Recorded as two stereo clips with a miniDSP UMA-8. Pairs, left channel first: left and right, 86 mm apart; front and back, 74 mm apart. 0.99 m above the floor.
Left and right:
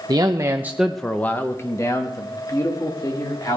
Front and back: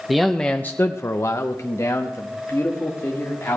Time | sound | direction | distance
0.1 | a man speaking | 95° right | 0.7 m